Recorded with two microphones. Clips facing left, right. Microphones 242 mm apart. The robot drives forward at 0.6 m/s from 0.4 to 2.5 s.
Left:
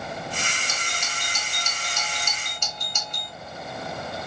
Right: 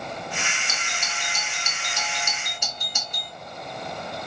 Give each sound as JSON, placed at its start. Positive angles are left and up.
{"t": 0.7, "sound": "a doorbell", "side_deg": -5, "distance_m": 2.0}